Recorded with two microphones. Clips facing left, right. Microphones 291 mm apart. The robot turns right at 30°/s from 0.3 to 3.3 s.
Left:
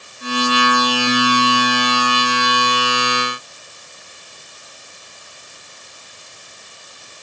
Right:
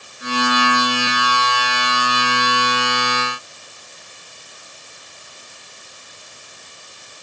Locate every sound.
Only background noise.